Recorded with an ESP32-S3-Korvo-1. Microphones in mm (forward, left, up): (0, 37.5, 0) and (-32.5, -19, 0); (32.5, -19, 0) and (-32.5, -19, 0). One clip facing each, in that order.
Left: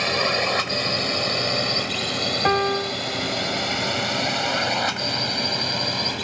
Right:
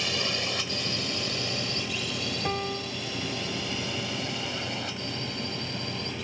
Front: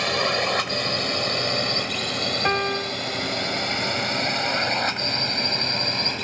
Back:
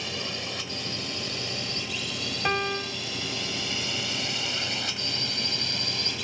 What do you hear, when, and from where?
0.0 s a drone: 25° left; by 6.2 s 45° left
2.5 s a piano: 75° left